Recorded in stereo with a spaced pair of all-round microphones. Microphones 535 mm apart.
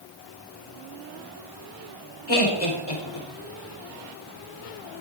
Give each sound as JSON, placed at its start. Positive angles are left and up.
{"t": 2.3, "sound": "laughter", "side_deg": 80, "distance_m": 4.5}